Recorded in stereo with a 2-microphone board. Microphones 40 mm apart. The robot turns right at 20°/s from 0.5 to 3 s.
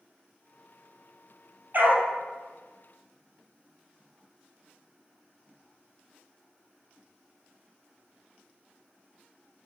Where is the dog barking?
45° right (ahead or behind), 1.9 m; by 2.1 s 55° right (ahead or behind), 1.9 m.